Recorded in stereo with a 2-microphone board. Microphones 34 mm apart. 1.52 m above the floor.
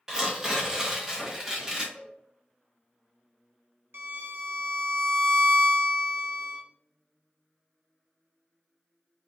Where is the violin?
80° right, 0.8 m.